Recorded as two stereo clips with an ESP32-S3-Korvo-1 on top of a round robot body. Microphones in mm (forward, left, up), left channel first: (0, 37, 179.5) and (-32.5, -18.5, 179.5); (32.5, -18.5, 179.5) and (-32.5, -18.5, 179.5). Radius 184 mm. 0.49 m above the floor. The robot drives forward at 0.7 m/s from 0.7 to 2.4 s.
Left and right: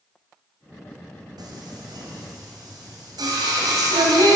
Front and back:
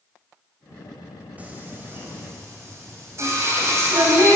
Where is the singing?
110° right, 1.3 m; by 4.4 s 135° right, 1.7 m.